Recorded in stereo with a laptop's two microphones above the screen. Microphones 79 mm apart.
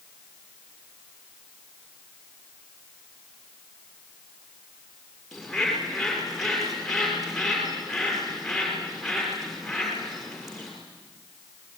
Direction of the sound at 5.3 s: 5° left (ahead or behind).